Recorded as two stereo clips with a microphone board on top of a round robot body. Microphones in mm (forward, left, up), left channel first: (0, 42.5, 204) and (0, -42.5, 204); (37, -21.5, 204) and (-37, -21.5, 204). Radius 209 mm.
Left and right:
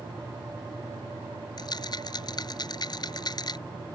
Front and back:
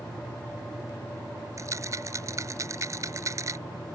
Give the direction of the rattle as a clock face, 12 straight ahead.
8 o'clock.